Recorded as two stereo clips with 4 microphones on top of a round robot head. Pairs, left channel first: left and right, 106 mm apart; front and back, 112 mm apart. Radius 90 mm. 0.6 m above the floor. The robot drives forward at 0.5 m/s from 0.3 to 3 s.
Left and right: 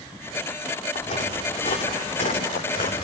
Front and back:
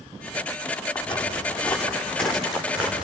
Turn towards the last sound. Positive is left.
turn(degrees=100)